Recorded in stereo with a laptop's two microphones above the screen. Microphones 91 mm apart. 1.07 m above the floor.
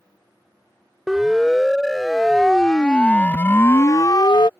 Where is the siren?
5° right (ahead or behind); by 4.5 s 65° left (ahead or behind).